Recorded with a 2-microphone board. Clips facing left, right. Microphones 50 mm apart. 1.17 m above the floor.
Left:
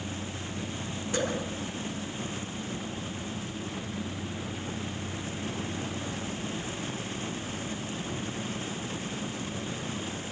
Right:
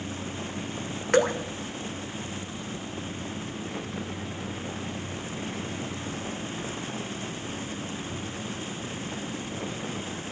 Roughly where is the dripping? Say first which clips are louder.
Right 9 dB; right.